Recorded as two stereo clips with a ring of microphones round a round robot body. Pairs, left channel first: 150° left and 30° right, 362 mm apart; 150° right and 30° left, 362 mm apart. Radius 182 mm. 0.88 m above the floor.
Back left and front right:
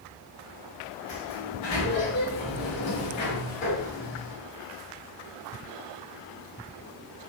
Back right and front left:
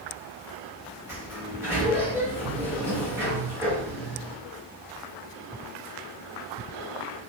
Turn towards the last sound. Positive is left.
turn(degrees=110)